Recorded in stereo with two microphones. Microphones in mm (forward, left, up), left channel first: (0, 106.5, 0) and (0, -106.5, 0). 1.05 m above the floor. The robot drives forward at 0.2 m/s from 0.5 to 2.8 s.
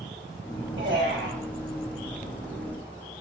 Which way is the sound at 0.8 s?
65° right (ahead or behind).